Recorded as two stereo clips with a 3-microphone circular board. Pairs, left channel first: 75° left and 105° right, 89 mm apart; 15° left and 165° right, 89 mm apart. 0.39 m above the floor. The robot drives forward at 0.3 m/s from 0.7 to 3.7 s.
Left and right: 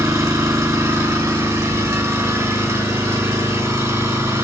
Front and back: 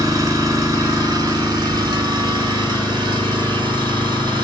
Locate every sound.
0.0 s an engine running: 140° right, 1.6 m; by 4.5 s 155° right, 2 m